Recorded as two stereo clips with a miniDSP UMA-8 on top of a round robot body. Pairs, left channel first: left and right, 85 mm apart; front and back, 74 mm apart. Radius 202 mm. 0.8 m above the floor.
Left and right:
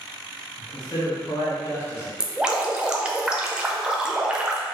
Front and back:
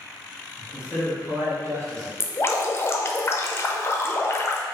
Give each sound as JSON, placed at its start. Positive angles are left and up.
{"t": 0.6, "sound": "a man speaking", "azimuth_deg": 100, "distance_m": 1.3}
{"t": 2.2, "sound": "dripping", "azimuth_deg": -15, "distance_m": 0.8}